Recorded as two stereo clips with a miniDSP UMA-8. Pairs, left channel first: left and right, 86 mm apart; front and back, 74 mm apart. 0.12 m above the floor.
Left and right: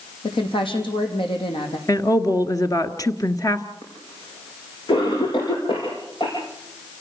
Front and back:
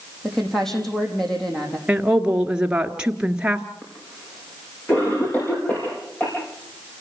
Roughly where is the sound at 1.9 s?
Left.